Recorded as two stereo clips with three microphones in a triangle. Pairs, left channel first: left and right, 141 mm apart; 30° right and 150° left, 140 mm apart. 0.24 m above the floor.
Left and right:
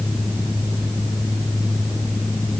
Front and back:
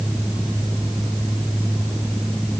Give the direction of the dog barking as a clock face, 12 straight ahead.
I don't hear a dog barking.